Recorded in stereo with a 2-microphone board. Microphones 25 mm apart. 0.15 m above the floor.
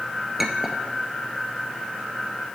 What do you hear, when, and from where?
0.4 s a clink: 10° right (ahead or behind), 1.4 m